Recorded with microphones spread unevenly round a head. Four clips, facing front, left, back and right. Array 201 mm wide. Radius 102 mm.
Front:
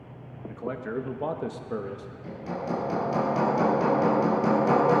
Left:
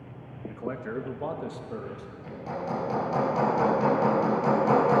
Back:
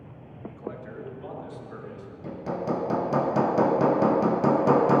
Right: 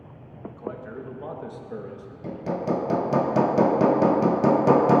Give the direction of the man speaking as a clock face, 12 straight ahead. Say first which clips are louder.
Left 2 dB, front 6 dB; 11 o'clock.